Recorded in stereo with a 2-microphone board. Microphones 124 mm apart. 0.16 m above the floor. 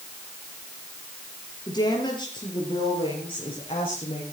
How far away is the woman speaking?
About 4 m.